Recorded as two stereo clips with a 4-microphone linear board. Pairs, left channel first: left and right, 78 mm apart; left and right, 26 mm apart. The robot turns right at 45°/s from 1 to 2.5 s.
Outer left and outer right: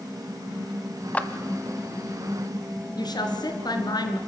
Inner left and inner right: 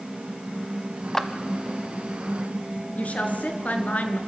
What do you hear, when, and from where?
1.1 s a clap: 20° left (ahead or behind), 1.2 m; by 1.3 s 15° left (ahead or behind), 1.2 m
3.0 s a woman speaking: 60° left (ahead or behind), 2.5 m